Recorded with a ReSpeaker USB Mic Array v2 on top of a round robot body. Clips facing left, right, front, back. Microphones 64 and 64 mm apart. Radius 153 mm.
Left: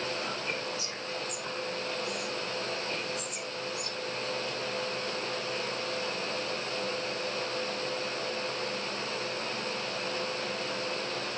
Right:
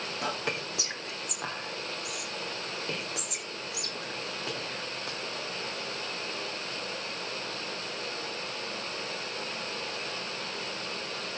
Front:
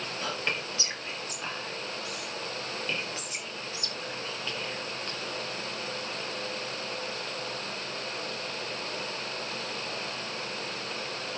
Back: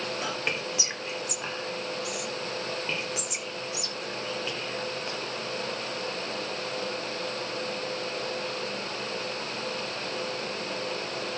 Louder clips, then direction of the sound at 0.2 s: Right 1 dB, front 2 dB; 105° right.